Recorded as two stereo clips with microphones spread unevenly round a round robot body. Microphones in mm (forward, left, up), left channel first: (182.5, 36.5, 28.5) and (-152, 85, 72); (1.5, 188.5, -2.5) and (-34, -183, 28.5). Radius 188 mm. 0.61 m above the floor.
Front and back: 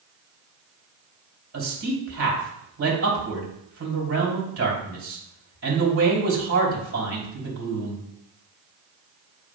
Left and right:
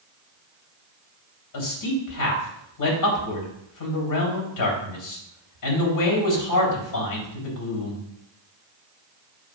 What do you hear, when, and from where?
1.5 s a man speaking: 120° left, 3 m